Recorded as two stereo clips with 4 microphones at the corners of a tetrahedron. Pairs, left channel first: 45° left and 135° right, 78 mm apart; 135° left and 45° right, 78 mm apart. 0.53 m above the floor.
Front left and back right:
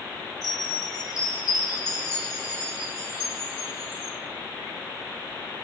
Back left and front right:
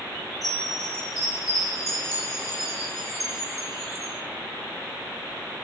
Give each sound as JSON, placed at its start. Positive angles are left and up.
{"t": 0.4, "sound": "a chime", "azimuth_deg": 45, "distance_m": 2.5}